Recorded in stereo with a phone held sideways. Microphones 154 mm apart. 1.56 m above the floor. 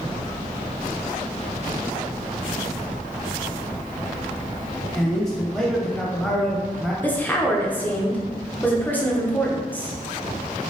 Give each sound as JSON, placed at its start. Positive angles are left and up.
{"t": 5.0, "sound": "a man speaking", "side_deg": 5, "distance_m": 1.1}
{"t": 7.0, "sound": "a woman speaking", "side_deg": 10, "distance_m": 0.9}